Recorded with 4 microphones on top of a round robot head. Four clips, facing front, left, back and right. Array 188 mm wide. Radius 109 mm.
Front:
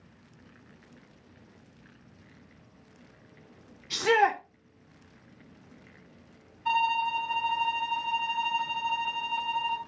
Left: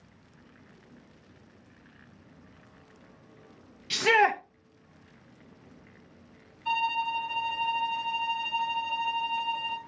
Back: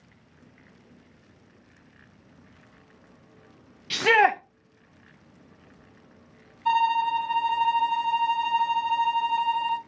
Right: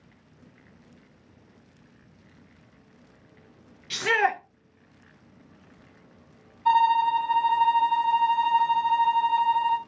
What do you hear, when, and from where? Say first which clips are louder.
3.9 s a shout: left 1 dB, back 3 dB; 165° left, 0.7 m
6.7 s a violin: right 9 dB, back 5 dB; 125° right, 3 m